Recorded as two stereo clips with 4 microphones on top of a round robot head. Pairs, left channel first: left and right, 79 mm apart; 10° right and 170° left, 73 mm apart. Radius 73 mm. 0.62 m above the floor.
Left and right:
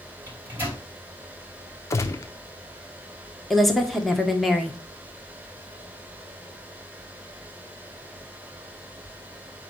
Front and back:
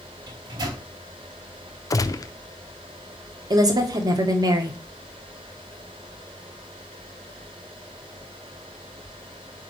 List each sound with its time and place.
0.3 s a microwave: 160° right, 4.5 m
1.9 s a gunshot: 30° left, 0.7 m
3.5 s a woman speaking: straight behind, 1.8 m